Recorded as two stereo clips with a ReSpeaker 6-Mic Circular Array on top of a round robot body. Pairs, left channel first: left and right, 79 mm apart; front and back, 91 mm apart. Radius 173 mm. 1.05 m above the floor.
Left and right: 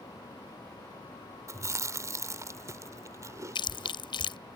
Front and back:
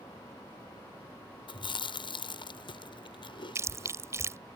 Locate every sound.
1.5 s chewing: 35° right
3.5 s chewing: 115° left